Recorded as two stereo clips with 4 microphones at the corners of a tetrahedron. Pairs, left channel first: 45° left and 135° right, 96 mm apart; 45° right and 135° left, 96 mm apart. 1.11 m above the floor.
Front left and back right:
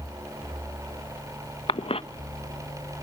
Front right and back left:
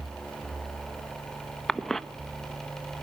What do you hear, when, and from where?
1.7 s a cough: 40° left, 1.0 m